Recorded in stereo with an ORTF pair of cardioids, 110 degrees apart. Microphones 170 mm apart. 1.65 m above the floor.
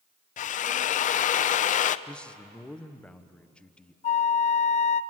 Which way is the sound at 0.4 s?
50° left.